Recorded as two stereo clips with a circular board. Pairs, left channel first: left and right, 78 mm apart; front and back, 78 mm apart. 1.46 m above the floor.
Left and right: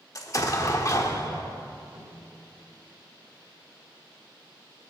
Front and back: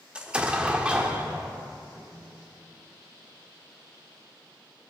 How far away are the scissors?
I don't hear scissors.